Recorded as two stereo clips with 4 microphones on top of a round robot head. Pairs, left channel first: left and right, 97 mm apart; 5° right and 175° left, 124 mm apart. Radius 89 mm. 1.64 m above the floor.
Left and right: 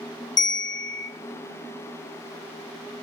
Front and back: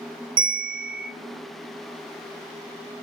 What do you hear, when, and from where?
0.4 s a bell: 135° left, 2.0 m